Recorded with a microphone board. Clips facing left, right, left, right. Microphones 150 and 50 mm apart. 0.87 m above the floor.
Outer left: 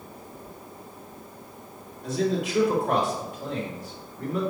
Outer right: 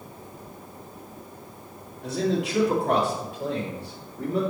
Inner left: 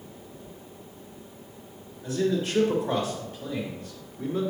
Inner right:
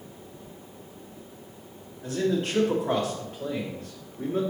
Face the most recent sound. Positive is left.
turn(degrees=-55)  # may be behind; listen again after turning